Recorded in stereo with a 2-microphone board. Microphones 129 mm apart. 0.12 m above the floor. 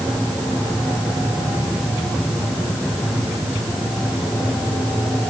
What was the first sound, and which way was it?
Only background noise.